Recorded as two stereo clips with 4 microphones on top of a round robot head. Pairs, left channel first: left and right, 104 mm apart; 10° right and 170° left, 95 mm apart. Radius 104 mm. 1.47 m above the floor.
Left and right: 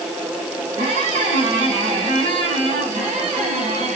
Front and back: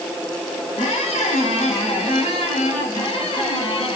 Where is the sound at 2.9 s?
50° right, 8.5 m.